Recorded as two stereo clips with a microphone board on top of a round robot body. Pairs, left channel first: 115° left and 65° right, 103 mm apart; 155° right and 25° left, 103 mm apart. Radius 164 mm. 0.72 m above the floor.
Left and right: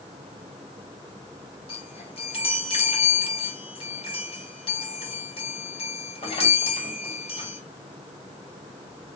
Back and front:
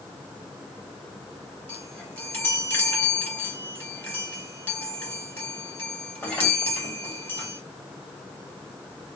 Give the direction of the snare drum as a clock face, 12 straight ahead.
No snare drum in this recording.